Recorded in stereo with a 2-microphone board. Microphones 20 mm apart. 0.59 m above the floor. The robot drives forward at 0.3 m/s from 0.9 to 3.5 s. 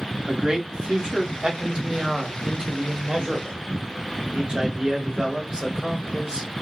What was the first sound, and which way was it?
A man speaking, 50° right (ahead or behind).